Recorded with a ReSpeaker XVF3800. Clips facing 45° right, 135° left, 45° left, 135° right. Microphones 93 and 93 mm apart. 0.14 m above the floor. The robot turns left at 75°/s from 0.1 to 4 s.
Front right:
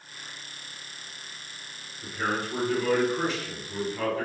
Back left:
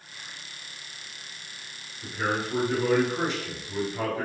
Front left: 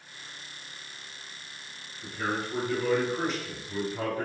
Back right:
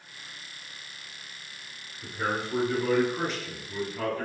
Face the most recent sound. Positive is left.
turn(degrees=80)